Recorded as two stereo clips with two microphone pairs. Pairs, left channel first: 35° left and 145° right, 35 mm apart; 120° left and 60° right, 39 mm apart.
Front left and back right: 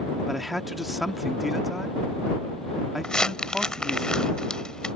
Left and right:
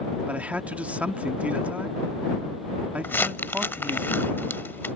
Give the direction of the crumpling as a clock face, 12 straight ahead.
9 o'clock.